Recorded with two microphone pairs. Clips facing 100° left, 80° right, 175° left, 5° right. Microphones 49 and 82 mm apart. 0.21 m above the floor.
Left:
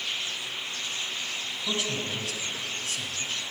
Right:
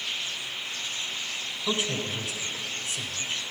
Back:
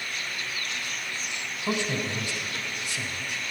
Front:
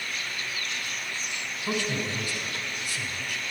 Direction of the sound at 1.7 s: 130° right.